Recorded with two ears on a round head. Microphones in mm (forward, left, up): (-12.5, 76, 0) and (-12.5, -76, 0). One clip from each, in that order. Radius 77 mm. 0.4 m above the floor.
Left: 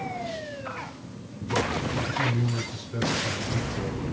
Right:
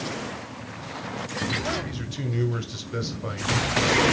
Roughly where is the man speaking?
Right.